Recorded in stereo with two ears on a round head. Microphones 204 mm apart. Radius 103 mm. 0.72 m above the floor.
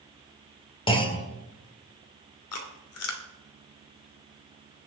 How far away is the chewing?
About 2 m.